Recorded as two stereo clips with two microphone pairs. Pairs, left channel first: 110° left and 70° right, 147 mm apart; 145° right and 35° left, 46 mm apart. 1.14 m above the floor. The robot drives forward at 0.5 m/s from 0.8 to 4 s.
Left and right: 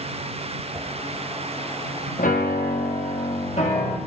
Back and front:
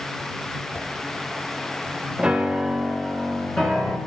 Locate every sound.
0.7 s a whoosh: 135° right, 1.5 m
2.2 s a piano: 100° left, 0.9 m; by 4.0 s 145° left, 1.4 m